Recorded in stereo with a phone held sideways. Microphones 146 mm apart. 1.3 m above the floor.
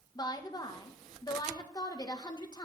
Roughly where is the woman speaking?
Left.